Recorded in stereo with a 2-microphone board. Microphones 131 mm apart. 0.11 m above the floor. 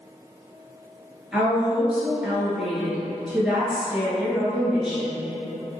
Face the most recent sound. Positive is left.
turn(degrees=-5)  # may be behind; listen again after turning